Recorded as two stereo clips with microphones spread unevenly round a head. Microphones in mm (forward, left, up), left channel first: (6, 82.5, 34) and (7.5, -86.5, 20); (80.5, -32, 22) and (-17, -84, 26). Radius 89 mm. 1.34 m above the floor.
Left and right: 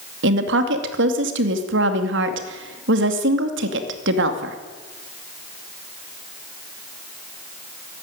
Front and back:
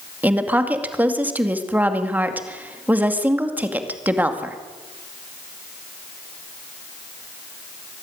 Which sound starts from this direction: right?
A woman speaking, at 0.2 s.